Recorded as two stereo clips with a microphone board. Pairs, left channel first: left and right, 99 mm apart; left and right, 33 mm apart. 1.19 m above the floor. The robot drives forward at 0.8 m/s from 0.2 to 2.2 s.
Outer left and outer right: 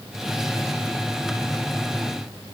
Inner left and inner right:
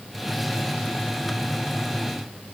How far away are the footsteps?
I don't hear footsteps.